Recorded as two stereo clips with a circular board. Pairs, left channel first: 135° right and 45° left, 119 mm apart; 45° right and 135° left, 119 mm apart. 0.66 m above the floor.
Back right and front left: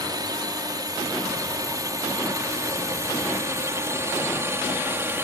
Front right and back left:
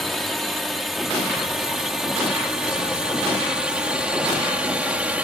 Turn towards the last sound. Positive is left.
turn(degrees=75)